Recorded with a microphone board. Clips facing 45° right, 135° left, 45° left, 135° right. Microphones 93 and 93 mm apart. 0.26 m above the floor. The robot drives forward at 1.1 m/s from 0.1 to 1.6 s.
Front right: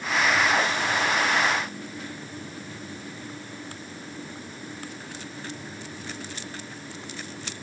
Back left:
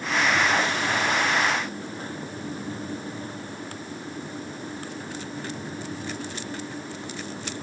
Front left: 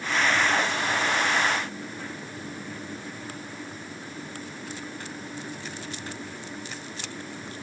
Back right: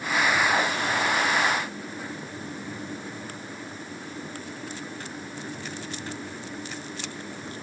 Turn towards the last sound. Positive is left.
No sound to turn to.